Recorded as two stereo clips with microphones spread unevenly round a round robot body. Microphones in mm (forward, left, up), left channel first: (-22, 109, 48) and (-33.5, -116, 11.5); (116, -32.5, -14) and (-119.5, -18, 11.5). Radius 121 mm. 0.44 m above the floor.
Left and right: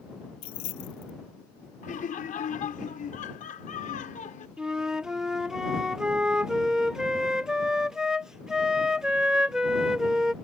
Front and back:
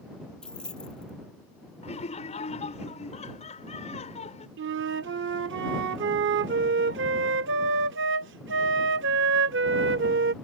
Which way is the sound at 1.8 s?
35° left.